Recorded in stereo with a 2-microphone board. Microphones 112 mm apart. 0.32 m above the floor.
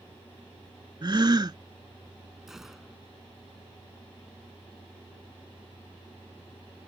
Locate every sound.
1.0 s a gasp: 40° right (ahead or behind)
2.5 s a gunshot: 5° right (ahead or behind)